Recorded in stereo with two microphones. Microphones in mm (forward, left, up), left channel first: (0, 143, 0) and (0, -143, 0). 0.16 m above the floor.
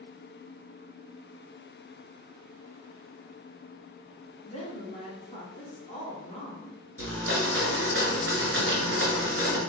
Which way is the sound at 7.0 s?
45° right (ahead or behind).